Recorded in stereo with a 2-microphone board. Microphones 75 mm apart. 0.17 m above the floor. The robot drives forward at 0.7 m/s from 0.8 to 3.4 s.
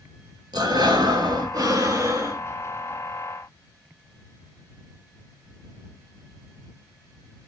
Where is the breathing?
75° right (ahead or behind), 0.9 m; by 2.4 s 40° right (ahead or behind), 1.4 m.